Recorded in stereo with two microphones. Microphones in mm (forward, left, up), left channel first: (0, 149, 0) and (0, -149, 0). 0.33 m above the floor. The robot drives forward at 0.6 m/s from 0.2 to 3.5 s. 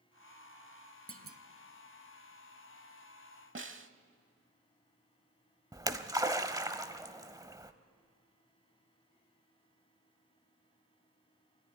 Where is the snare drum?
40° right (ahead or behind), 0.7 m.